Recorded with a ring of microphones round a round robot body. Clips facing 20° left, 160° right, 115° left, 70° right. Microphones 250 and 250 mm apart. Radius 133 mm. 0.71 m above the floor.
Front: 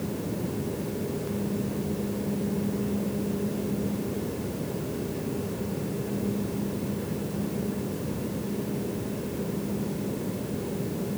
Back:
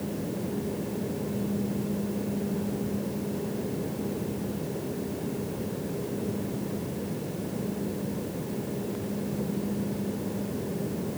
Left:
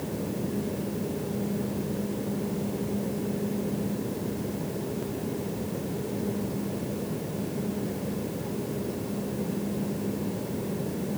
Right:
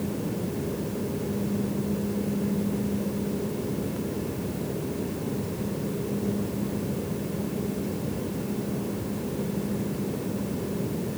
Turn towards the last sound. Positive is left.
No sound to turn to.